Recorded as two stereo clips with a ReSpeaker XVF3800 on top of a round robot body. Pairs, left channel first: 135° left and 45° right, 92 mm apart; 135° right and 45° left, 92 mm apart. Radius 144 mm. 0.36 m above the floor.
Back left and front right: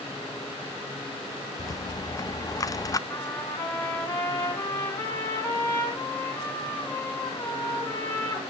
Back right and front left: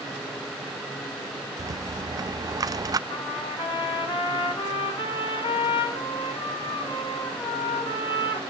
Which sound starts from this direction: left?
A rattle, at 1.6 s.